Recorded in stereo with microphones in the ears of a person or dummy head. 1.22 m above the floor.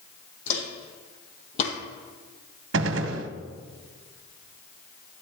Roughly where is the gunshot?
Right.